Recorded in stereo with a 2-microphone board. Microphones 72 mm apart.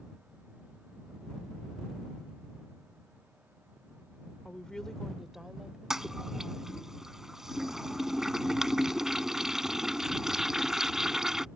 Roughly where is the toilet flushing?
Centre.